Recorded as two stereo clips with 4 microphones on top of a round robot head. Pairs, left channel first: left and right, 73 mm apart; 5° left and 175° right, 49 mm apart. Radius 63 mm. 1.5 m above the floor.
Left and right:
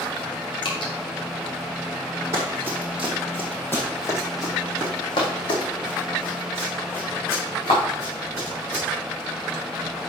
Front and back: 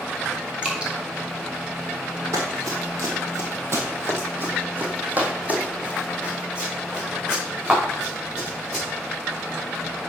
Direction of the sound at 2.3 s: 150° right.